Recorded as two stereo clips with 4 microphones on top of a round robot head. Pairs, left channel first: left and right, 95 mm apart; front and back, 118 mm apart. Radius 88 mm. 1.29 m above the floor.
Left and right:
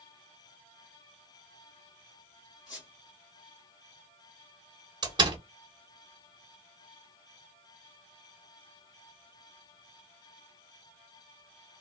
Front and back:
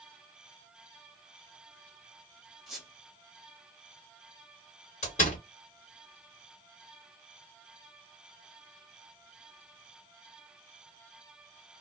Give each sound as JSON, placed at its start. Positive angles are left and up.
{"t": 2.7, "sound": "a squeak", "azimuth_deg": 100, "distance_m": 0.9}
{"t": 5.0, "sound": "a door slam", "azimuth_deg": -45, "distance_m": 0.9}